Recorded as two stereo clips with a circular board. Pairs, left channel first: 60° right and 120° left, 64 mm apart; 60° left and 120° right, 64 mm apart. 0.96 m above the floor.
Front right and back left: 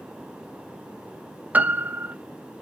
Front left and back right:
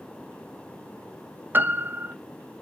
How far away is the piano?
About 0.6 m.